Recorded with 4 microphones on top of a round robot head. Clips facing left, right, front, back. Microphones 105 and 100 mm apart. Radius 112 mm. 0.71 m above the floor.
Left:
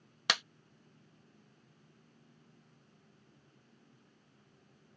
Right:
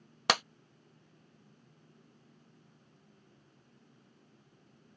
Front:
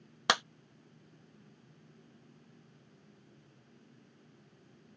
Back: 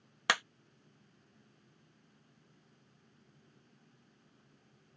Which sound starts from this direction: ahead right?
A clap, at 0.3 s.